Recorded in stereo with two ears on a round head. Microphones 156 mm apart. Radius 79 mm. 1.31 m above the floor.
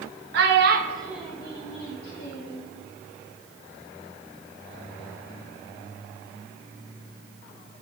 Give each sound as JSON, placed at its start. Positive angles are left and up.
{"t": 0.3, "sound": "a child speaking", "side_deg": -70, "distance_m": 0.9}